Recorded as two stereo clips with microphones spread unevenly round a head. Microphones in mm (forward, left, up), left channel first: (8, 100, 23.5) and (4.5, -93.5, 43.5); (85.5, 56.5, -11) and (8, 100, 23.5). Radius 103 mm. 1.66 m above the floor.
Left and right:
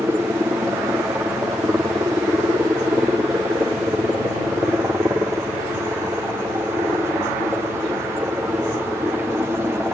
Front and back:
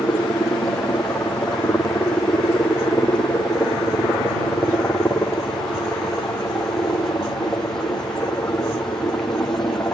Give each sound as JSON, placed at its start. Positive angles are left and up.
{"t": 0.0, "sound": "a helicopter", "azimuth_deg": -15}